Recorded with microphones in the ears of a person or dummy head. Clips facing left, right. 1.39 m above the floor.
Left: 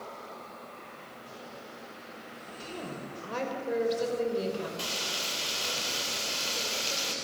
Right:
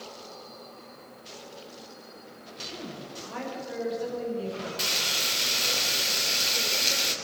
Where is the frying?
25° right (ahead or behind), 3.5 m.